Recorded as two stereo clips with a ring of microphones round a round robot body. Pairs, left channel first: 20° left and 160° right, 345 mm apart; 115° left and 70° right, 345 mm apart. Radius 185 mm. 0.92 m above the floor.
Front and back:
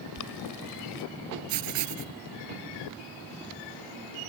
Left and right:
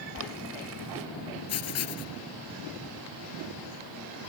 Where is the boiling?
15° right.